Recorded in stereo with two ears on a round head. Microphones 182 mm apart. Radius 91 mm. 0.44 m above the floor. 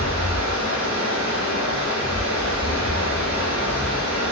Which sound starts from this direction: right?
Running water, at 0.0 s.